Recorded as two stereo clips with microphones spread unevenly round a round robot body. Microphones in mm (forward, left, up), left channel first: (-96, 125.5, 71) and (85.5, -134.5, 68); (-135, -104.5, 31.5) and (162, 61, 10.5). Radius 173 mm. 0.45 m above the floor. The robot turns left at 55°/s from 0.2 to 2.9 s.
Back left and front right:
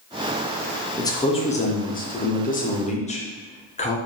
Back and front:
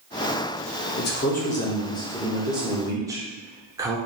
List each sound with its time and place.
1.0 s a man speaking: 165° right, 0.7 m; by 4.0 s 90° left, 0.7 m